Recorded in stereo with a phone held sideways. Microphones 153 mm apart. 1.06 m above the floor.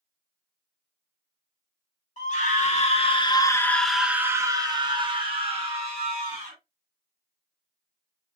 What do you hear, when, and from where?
2.2 s a scream: 55° left (ahead or behind), 1.0 m; by 6.6 s 45° right (ahead or behind), 1.7 m